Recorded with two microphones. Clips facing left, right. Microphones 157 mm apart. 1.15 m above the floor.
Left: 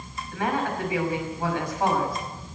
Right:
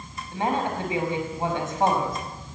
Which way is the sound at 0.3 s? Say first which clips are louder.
Right 1 dB; 25° right (ahead or behind).